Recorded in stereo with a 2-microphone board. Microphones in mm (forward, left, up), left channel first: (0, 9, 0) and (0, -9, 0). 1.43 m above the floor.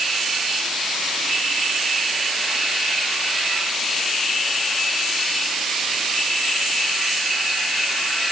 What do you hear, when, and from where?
Only background noise.